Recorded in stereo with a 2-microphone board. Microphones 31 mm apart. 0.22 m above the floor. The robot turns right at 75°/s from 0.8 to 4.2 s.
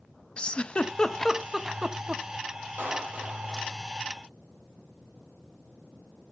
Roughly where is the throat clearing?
I don't hear throat clearing.